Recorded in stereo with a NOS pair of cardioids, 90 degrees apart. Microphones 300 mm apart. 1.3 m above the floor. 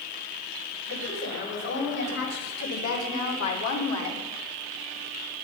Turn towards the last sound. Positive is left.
turn(degrees=70)